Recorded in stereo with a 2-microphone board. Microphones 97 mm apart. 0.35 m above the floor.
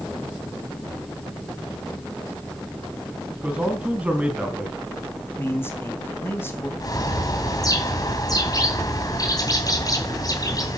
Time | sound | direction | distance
3.4 | a man speaking | 15° right (ahead or behind) | 3.5 m
5.4 | a man speaking | 25° left (ahead or behind) | 3 m
6.8 | a bird | 40° left (ahead or behind) | 2.5 m